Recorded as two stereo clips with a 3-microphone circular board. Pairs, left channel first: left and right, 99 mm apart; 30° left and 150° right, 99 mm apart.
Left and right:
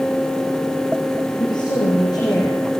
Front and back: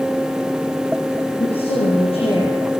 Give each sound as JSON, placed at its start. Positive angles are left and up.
{"t": 1.4, "sound": "a woman speaking", "azimuth_deg": 45, "distance_m": 8.5}